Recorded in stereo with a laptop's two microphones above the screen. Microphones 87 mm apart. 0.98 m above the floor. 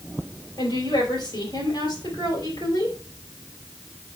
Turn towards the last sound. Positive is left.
turn(degrees=50)  # may be behind; listen again after turning